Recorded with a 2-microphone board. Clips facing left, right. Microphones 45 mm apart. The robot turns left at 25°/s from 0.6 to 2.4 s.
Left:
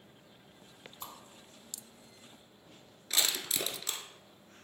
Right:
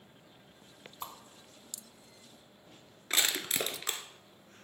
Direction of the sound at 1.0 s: 25° right (ahead or behind).